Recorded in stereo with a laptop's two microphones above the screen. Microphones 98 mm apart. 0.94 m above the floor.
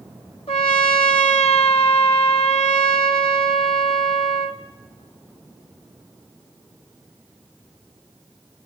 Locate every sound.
0.5 s a trumpet: 70° left (ahead or behind), 1.2 m